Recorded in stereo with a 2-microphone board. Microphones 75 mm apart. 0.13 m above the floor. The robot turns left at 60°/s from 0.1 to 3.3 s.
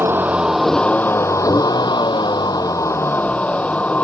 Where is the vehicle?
150° right; by 4.0 s 20° left.